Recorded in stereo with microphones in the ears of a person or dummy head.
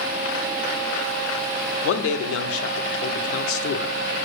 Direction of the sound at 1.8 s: 85° left.